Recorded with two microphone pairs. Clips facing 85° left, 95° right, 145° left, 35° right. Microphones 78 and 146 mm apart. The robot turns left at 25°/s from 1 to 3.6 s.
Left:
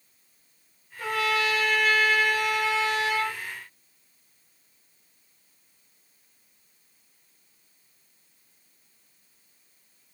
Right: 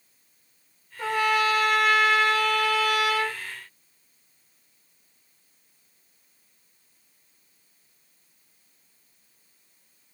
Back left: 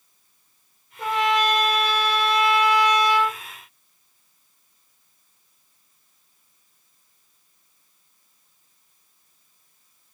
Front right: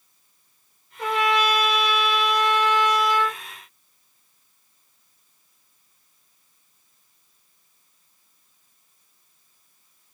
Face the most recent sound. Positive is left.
turn(degrees=130)